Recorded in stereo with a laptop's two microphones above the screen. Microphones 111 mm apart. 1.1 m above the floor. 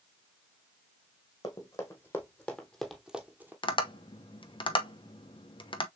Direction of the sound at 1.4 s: 35° left (ahead or behind).